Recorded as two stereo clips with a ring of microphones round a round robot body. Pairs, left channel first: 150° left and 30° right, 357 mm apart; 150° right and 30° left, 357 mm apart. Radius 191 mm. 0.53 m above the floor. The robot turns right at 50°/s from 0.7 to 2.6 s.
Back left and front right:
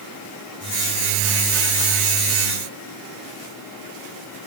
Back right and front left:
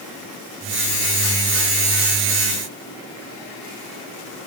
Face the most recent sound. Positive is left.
No sound to turn to.